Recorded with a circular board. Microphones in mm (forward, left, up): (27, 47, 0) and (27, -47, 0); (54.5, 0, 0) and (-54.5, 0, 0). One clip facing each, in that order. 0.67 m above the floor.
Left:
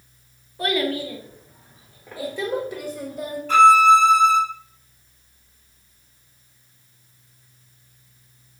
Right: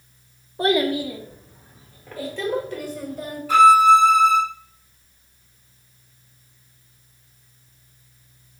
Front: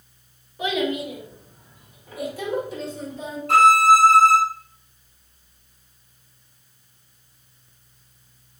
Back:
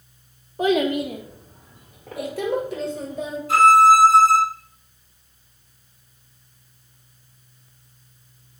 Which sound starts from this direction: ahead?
A violin, at 3.5 s.